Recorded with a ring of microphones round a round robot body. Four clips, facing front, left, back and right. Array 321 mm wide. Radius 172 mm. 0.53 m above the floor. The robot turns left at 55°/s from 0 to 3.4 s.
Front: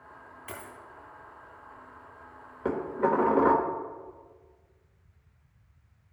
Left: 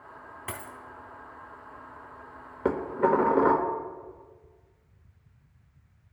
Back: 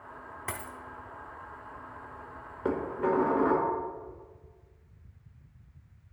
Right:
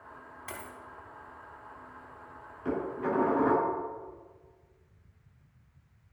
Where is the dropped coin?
150° left, 1.1 m; by 0.8 s 135° left, 1.1 m.